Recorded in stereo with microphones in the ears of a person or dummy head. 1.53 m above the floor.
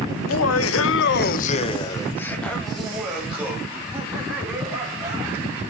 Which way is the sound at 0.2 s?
65° left (ahead or behind).